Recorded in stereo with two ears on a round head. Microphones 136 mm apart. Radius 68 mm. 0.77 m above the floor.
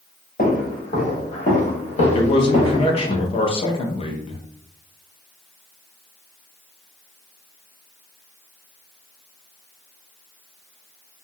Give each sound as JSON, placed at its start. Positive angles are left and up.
{"t": 0.4, "sound": "footsteps", "side_deg": 50, "distance_m": 1.8}
{"t": 2.1, "sound": "a man speaking", "side_deg": 40, "distance_m": 0.6}